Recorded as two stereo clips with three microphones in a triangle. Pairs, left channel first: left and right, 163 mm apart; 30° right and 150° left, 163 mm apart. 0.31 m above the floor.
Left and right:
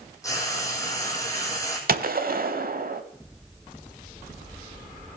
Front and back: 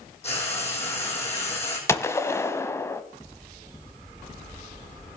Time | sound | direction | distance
0.2 | frying | 20° left | 3 m
1.9 | a gunshot | 105° right | 0.7 m